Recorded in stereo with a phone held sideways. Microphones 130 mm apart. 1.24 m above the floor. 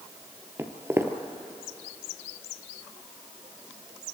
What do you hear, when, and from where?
0.6 s footsteps: 20° right (ahead or behind), 1.4 m